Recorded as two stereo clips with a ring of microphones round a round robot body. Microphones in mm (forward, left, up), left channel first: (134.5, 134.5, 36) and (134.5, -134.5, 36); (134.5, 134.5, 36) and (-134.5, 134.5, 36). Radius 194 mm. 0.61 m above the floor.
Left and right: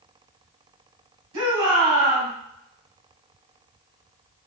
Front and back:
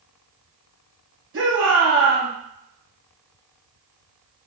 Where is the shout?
125° right, 2 m.